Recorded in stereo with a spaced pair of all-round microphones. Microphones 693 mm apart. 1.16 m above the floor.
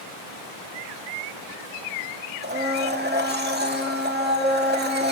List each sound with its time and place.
2.4 s a blender: 15° right (ahead or behind), 2 m